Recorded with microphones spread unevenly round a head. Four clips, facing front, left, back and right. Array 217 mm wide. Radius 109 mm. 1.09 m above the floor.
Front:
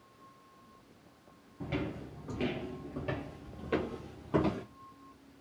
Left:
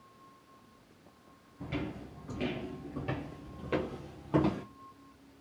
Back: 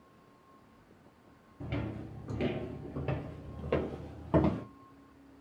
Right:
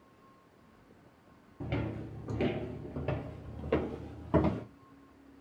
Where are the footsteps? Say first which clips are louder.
Right 1 dB, front 2 dB; 75° right, 1.1 m; by 4.6 s 150° left, 2 m.